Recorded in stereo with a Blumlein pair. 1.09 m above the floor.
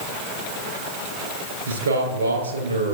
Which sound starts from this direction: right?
A man speaking, at 1.7 s.